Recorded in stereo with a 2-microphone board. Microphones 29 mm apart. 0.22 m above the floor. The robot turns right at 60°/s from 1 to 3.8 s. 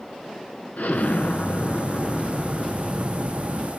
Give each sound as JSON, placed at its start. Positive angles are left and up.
{"t": 0.8, "sound": "an explosion", "azimuth_deg": 85, "distance_m": 0.8}